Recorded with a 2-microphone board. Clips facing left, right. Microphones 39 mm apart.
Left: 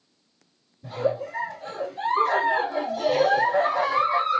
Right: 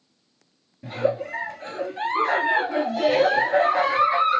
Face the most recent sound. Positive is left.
turn(degrees=-70)  # may be behind; listen again after turning